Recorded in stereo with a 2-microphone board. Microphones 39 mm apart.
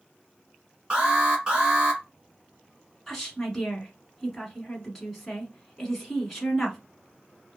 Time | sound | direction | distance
0.9 | an alarm | 25° right (ahead or behind) | 1.2 m
3.1 | a woman speaking | 5° left (ahead or behind) | 1.2 m